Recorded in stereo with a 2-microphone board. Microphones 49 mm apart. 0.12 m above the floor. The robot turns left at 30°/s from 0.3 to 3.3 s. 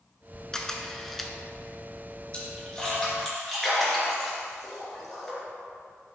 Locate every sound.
0.5 s a camera shutter: 10° left (ahead or behind), 0.7 m; by 1.3 s centre (ahead or behind), 0.7 m
2.3 s a splash: 25° left (ahead or behind), 2 m; by 5.4 s 5° left (ahead or behind), 2 m